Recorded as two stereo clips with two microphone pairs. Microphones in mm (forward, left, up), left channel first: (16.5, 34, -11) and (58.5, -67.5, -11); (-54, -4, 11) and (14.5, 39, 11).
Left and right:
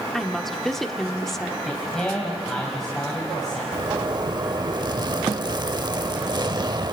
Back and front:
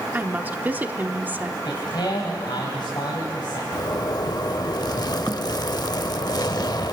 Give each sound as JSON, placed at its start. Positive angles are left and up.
{"t": 0.1, "sound": "a woman speaking", "azimuth_deg": 25, "distance_m": 0.9}
{"t": 1.6, "sound": "a man speaking", "azimuth_deg": -160, "distance_m": 2.5}
{"t": 3.7, "sound": "a zipper", "azimuth_deg": -110, "distance_m": 0.6}